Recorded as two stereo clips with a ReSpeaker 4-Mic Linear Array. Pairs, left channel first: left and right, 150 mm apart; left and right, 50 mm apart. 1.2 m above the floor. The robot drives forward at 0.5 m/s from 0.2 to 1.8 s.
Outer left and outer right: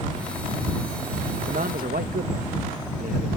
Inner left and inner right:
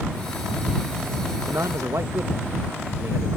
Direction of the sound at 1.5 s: 80° right.